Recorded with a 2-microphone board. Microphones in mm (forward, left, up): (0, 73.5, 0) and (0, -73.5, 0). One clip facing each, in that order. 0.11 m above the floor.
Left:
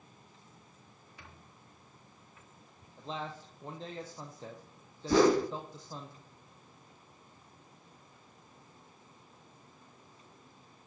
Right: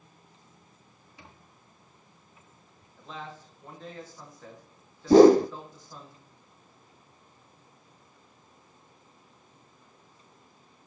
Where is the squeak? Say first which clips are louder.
Right 3 dB; 20° right (ahead or behind), 4.5 m.